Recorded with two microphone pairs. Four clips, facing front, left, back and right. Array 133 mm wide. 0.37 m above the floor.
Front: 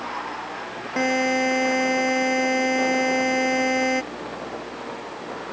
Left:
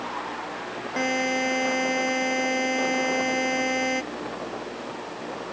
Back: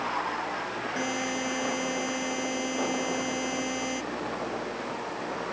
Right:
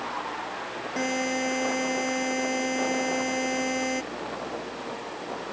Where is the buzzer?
20° left.